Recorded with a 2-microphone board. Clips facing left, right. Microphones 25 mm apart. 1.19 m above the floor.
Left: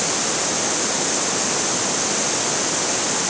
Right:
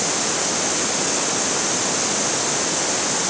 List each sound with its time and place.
Only background noise.